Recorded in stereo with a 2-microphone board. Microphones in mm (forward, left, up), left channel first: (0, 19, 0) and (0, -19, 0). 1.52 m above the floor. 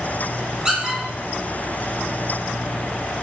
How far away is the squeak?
About 1.6 m.